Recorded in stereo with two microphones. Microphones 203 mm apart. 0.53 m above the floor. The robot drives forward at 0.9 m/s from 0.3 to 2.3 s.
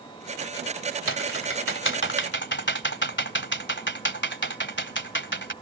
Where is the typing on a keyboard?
75° left (ahead or behind); by 5.5 s 65° left (ahead or behind).